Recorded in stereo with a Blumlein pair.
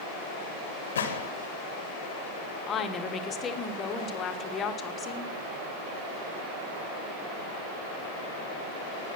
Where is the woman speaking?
25° left, 1.1 m.